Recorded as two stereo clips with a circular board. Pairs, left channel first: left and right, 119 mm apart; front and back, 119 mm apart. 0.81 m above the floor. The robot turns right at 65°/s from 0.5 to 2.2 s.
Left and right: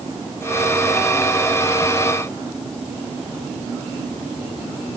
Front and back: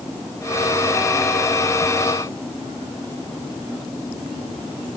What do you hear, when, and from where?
Only background noise.